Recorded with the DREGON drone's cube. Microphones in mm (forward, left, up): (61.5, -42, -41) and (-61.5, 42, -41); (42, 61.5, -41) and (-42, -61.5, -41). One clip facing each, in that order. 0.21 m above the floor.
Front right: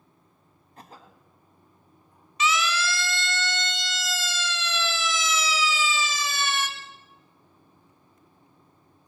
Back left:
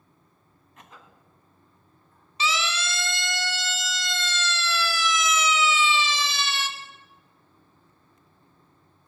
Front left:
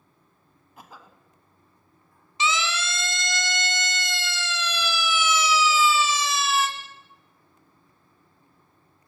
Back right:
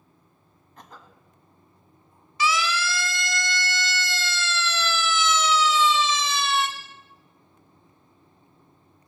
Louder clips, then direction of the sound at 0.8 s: Front right 3 dB, even; 25° right.